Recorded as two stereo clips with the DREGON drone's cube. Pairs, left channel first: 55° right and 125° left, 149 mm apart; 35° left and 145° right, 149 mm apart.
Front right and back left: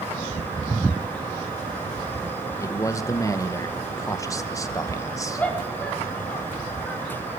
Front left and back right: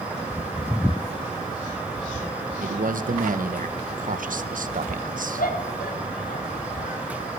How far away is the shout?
About 4.5 m.